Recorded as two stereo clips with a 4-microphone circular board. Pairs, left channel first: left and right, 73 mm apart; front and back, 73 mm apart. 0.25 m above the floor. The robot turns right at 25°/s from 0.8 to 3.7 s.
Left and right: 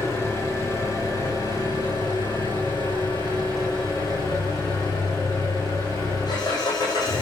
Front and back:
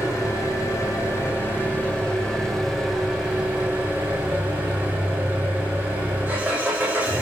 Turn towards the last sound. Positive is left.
turn(degrees=115)